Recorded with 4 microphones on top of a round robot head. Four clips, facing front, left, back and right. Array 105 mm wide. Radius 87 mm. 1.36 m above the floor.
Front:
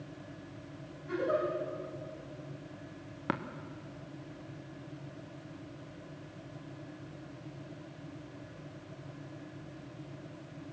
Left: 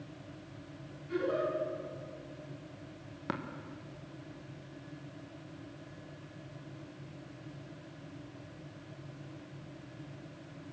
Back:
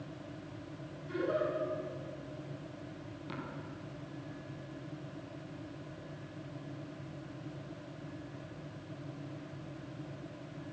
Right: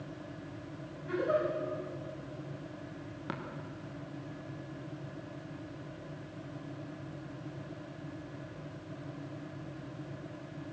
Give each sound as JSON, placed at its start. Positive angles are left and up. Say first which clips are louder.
{"t": 1.1, "sound": "a giggle", "louder": "right 2 dB, front 2 dB", "azimuth_deg": -65, "distance_m": 10.0}
{"t": 3.3, "sound": "tapping", "louder": "left 4 dB, front 9 dB", "azimuth_deg": 15, "distance_m": 1.6}